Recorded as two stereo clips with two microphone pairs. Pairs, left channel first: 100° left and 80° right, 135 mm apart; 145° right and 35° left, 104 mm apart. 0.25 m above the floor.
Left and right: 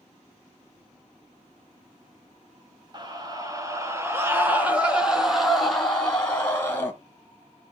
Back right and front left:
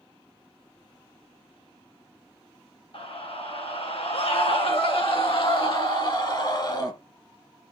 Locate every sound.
2.9 s a scream: 135° right, 2.5 m; by 6.9 s 170° left, 2.5 m